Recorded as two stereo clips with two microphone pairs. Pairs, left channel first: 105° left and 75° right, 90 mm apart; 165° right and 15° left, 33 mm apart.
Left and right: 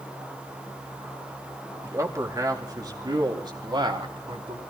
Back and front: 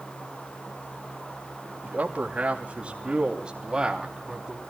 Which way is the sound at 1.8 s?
25° right.